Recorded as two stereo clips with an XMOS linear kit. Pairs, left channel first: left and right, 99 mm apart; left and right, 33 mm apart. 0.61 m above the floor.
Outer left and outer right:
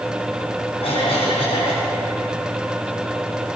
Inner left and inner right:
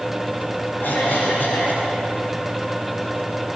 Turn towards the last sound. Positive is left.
turn(degrees=80)